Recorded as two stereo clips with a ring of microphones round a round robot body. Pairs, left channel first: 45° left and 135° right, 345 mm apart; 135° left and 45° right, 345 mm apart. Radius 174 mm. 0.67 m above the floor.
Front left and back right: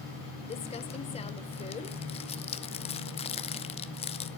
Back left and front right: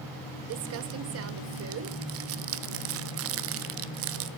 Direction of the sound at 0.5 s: 20° right.